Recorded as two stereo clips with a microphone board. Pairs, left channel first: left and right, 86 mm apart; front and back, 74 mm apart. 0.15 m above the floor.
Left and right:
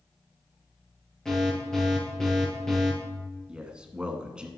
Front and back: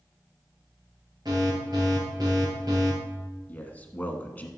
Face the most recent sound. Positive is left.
turn(degrees=-30)